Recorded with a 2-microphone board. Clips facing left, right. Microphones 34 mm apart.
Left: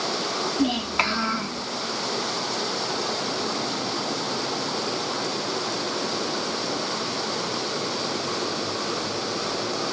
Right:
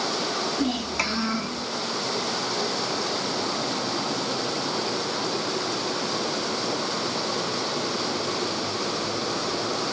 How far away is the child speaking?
About 1.5 m.